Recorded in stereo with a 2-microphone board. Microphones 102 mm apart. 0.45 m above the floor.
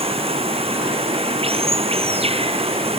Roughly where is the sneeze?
No sneeze in this recording.